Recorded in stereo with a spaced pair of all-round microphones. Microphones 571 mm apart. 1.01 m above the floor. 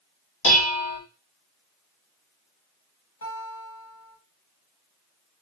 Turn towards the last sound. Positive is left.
turn(degrees=80)